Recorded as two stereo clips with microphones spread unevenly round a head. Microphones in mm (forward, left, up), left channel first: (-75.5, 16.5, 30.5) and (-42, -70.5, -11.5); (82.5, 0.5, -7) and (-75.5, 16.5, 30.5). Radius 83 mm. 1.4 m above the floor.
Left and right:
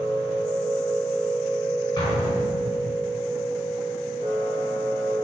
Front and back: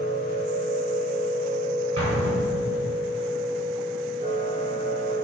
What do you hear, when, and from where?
0.0 s a machine running: 135° left, 3 m
2.0 s an explosion: 125° left, 3.5 m